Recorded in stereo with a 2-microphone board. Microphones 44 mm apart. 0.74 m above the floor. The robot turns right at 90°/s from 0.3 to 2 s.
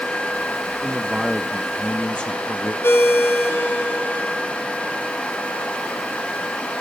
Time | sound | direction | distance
0.8 | a man speaking | 65° right | 0.7 m
2.8 | a ringtone | 65° left (ahead or behind) | 1.4 m